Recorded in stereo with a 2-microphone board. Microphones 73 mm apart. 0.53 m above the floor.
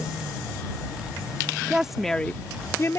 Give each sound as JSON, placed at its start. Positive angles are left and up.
{"t": 1.7, "sound": "a woman speaking", "side_deg": -10}